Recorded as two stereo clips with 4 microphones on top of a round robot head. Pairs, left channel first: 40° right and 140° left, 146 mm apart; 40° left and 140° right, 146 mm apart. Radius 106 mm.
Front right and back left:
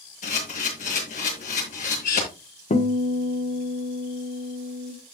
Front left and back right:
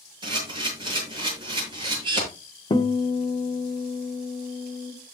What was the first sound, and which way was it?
A camera shutter, 80° right.